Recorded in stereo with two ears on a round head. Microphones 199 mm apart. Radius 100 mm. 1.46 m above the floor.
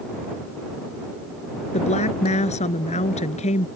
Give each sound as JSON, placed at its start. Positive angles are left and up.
{"t": 1.7, "sound": "a woman speaking", "side_deg": 30}